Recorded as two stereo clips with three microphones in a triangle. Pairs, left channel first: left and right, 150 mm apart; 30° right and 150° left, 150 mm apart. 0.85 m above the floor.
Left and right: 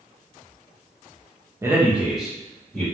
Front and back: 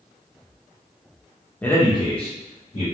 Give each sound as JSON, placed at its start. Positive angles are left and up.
{"t": 1.6, "sound": "a man speaking", "azimuth_deg": -90, "distance_m": 0.7}